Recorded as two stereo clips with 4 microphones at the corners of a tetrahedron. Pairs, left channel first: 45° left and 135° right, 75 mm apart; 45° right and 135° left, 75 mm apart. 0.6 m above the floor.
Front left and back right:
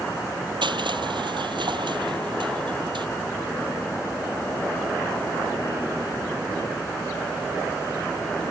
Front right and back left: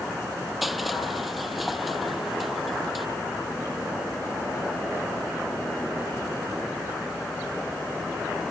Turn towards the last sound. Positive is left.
turn(degrees=-135)